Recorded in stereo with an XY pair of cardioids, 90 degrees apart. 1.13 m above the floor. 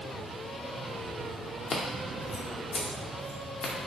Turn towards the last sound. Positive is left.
turn(degrees=70)